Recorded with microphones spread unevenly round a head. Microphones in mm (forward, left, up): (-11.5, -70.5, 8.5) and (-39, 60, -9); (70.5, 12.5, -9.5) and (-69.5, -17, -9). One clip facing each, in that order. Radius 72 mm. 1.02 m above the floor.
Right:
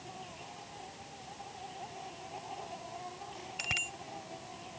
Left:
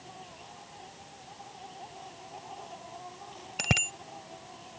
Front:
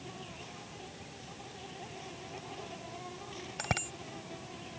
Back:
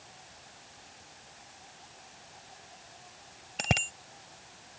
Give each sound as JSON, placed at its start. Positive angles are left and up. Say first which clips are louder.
{"t": 0.0, "sound": "an insect", "louder": "right 1 dB, front 9 dB", "azimuth_deg": 5}
{"t": 3.6, "sound": "a bicycle bell", "louder": "left 10 dB, back 4 dB", "azimuth_deg": 130}